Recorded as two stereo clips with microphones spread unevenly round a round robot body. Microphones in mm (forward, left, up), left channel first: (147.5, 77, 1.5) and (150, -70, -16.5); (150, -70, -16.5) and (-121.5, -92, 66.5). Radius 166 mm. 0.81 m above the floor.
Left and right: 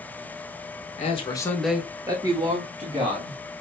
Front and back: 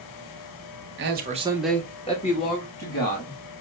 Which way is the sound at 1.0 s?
130° left.